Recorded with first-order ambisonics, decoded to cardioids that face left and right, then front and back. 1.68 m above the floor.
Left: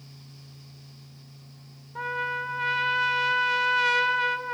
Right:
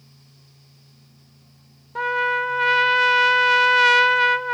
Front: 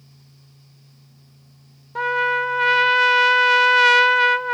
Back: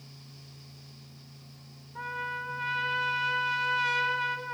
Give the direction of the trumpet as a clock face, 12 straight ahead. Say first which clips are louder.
Right 8 dB, front 15 dB; 1 o'clock.